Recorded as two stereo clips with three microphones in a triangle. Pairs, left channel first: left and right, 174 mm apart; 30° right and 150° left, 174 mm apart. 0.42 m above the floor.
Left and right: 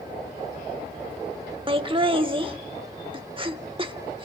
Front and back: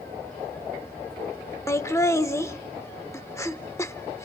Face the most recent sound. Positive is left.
turn(degrees=-85)